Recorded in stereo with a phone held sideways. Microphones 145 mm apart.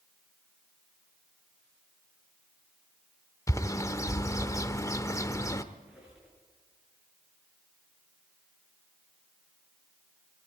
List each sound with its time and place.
3.5 s a bird: 20° left (ahead or behind), 0.9 m
5.7 s a squeak: 5° right (ahead or behind), 8.5 m